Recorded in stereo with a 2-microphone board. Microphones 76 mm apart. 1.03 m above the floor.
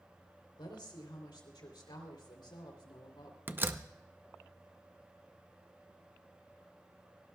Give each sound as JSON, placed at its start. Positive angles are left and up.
{"t": 0.6, "sound": "a woman speaking", "side_deg": 85, "distance_m": 3.0}
{"t": 3.5, "sound": "a door slam", "side_deg": -30, "distance_m": 0.6}